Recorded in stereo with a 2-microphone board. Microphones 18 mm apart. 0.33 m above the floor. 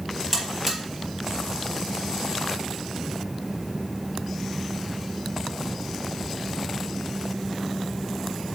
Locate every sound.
0.3 s a buzzer: 5° left (ahead or behind), 3.5 m